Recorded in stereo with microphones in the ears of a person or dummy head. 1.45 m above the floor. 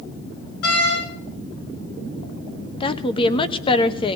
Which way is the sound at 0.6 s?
80° left.